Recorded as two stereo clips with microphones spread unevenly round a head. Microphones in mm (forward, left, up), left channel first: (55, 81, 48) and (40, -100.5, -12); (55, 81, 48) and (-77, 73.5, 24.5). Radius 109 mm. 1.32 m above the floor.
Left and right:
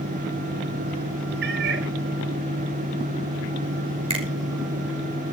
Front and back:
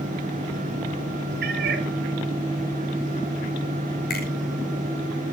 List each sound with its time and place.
1.4 s a cat meowing: 145° right, 1.9 m
4.1 s a finger snap: 35° right, 6 m